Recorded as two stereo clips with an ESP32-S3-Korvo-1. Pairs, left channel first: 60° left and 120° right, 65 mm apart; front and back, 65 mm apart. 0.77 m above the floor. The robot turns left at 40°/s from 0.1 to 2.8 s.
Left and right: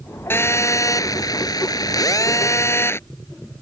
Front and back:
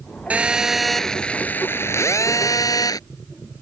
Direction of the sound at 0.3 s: 115° left.